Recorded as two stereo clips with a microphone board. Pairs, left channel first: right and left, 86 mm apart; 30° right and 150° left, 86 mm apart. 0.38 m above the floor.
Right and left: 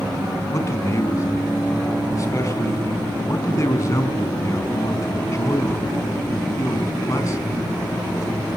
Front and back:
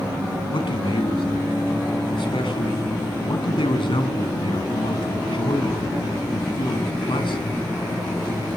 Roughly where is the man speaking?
Ahead right.